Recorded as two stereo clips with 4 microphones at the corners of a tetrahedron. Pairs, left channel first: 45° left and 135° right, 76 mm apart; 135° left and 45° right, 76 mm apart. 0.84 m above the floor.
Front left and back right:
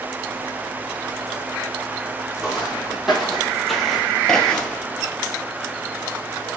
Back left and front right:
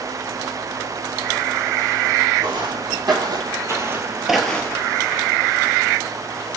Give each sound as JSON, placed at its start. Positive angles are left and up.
{"t": 2.4, "sound": "footsteps", "azimuth_deg": -50, "distance_m": 2.0}